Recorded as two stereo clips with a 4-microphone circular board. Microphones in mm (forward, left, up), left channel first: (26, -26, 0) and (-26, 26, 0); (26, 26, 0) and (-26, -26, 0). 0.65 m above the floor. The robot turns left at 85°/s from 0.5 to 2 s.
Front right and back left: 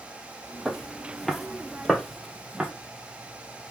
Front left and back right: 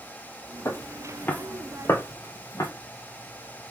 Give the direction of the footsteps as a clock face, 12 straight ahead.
10 o'clock.